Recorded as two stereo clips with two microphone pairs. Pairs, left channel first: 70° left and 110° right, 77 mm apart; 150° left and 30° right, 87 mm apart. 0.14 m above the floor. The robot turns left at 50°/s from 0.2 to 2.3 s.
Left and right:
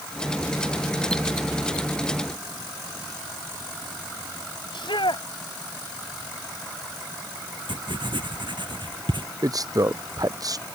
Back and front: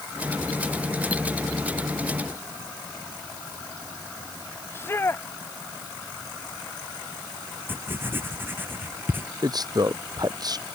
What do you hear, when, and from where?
4.7 s a shout: 90° left
7.7 s writing: 95° right
9.4 s a man speaking: 70° right